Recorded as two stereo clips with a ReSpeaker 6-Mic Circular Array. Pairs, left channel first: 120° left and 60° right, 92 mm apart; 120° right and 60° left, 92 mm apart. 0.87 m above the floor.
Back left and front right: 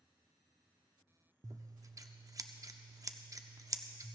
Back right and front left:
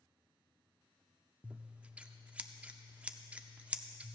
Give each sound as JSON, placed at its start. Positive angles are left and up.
{"t": 1.4, "sound": "scissors", "azimuth_deg": -15, "distance_m": 0.5}